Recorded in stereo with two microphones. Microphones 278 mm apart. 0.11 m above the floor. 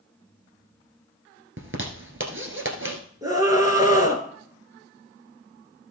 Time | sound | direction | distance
1.6 | a zipper | 50° right (ahead or behind) | 1.6 m
3.2 | a scream | 10° right (ahead or behind) | 2 m